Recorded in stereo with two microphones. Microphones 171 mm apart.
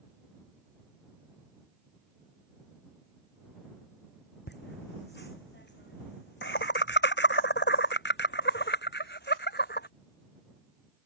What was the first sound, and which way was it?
Laughter, 75° left (ahead or behind).